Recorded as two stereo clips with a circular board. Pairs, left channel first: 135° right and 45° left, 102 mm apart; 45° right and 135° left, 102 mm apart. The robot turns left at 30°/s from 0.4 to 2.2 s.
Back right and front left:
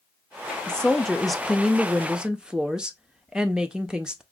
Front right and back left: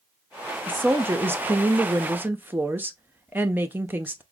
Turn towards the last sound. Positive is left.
turn(degrees=110)